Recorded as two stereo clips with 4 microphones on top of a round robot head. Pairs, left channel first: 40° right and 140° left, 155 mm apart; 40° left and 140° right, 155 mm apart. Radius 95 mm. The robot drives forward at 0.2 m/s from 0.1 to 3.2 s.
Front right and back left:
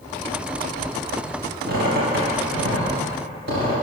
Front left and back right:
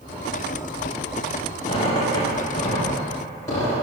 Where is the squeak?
105° left, 2.5 m; by 3.8 s 115° left, 2.5 m.